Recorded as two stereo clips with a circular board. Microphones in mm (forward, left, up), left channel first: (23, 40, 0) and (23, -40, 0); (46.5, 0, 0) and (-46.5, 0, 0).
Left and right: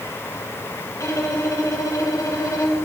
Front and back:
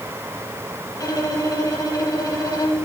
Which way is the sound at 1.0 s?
45° left.